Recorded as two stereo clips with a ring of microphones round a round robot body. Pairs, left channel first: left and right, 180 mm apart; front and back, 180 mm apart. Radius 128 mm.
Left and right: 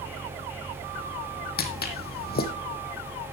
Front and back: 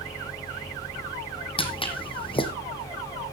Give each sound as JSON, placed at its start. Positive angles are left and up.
{"t": 1.6, "sound": "footsteps", "azimuth_deg": 60, "distance_m": 1.6}